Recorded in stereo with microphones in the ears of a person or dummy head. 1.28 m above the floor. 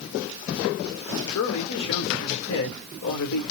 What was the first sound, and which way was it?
A man speaking, 80° left.